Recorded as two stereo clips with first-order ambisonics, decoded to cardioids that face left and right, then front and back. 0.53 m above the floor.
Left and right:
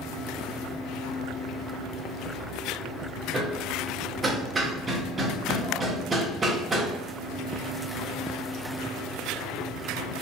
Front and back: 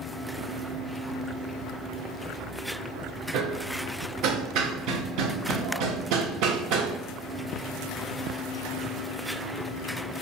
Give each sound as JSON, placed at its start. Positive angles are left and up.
{"t": 3.3, "sound": "hammering", "azimuth_deg": -165, "distance_m": 0.6}